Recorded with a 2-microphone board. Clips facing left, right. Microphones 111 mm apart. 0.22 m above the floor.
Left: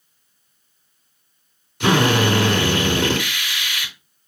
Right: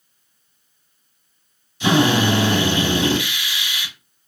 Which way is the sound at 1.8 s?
65° left (ahead or behind).